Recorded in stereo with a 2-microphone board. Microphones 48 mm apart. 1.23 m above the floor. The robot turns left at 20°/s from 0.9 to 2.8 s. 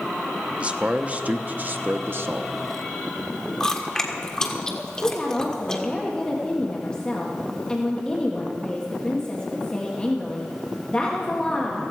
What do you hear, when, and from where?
0.6 s a man speaking: 25° right, 0.7 m; by 2.5 s 60° right, 0.7 m
3.6 s chewing: 15° left (ahead or behind), 1.4 m
5.0 s a woman speaking: 20° left (ahead or behind), 1.4 m